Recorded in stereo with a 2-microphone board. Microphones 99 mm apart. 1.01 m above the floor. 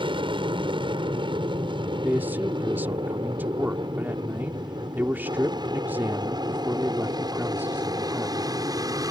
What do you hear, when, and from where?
0.0 s an aircraft: 60° right (ahead or behind); by 9.1 s 40° right (ahead or behind)
2.0 s a man speaking: 20° right (ahead or behind)